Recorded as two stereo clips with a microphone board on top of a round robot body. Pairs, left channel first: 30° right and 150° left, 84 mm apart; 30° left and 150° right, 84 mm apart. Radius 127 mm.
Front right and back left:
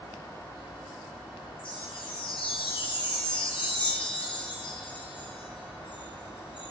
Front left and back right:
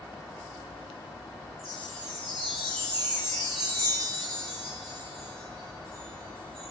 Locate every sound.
1.6 s a chime: 60° right, 2.5 m